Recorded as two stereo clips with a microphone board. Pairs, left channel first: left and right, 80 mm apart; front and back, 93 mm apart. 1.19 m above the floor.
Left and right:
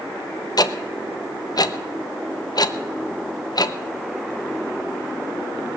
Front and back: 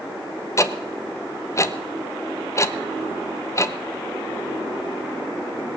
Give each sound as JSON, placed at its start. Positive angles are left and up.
{"t": 0.6, "sound": "ticking", "azimuth_deg": 55, "distance_m": 0.8}